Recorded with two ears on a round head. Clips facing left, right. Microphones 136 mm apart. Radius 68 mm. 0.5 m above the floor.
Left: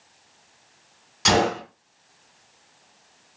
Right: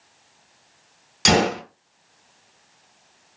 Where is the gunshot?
70° right (ahead or behind), 1.9 m.